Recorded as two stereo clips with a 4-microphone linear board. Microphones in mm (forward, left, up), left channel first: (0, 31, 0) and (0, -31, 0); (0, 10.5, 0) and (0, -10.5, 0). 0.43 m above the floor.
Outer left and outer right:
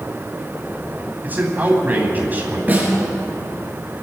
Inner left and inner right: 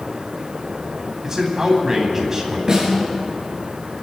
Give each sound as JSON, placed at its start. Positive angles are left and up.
{"t": 1.2, "sound": "a man speaking", "side_deg": -30, "distance_m": 3.0}
{"t": 2.7, "sound": "a snare drum", "side_deg": -25, "distance_m": 6.5}